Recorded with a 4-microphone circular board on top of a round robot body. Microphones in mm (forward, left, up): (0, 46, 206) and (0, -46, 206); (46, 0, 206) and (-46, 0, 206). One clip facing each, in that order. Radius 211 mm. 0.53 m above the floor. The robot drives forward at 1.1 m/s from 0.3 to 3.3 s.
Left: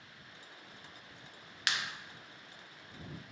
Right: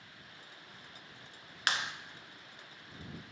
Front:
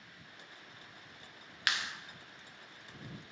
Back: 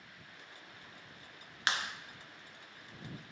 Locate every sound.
1.7 s a clap: 125° right, 0.6 m; by 1.9 s 150° right, 0.7 m